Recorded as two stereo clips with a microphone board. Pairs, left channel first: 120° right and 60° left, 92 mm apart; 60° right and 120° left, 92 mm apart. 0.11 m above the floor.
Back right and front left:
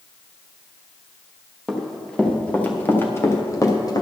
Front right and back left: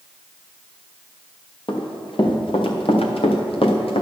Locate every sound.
1.7 s running footsteps: 35° right, 3 m; by 4.0 s 75° right, 2 m